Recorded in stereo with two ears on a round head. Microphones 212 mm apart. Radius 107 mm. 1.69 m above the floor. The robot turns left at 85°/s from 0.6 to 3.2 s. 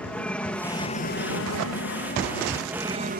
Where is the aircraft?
175° left; by 3.2 s 45° right.